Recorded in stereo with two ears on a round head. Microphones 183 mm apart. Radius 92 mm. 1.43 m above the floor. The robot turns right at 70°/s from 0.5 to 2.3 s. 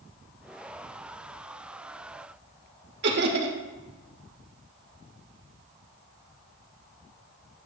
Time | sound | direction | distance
3.0 | laughter | 60° right (ahead or behind) | 1.9 m